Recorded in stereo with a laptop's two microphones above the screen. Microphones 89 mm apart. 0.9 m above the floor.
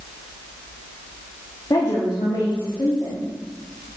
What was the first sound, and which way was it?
A woman speaking, 50° left (ahead or behind).